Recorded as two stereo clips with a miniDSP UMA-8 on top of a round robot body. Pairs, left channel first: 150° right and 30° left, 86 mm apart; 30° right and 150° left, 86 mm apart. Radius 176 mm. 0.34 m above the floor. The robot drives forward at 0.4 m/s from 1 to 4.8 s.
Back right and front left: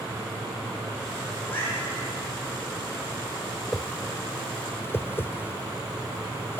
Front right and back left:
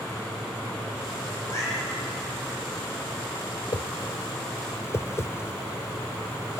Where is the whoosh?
55° right, 0.9 m; by 6.6 s 85° right, 0.8 m.